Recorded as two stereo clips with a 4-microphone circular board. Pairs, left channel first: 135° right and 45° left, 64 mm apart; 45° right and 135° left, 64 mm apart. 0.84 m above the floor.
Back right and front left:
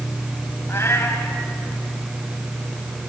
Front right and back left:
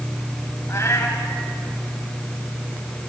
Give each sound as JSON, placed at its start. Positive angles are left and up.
{"t": 0.7, "sound": "a cat meowing", "azimuth_deg": -90, "distance_m": 3.0}